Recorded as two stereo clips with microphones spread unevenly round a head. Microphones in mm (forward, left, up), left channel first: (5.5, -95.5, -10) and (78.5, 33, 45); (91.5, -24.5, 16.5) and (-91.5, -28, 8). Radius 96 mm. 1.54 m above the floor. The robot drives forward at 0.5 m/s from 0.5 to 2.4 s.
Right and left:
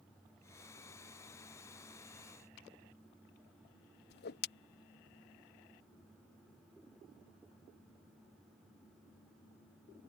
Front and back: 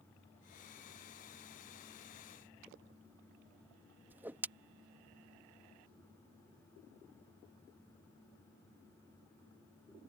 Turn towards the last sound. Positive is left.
turn(degrees=-100)